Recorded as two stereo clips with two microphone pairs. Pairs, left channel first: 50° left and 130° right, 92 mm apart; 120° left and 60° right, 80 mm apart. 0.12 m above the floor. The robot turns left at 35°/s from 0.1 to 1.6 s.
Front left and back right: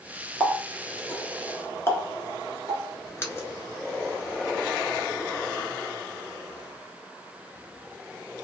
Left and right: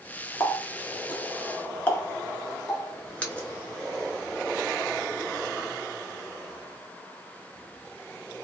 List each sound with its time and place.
0.4 s a running tap: 115° left, 0.8 m; by 5.7 s 70° left, 0.8 m